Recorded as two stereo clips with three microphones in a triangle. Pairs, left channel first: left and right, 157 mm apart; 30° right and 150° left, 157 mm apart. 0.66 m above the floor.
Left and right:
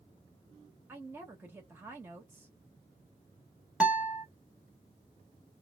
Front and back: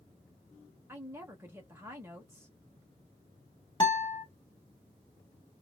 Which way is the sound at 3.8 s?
15° right.